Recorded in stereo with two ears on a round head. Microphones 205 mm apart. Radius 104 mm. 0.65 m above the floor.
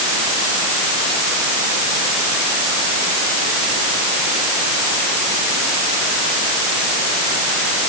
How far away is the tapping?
I don't hear tapping.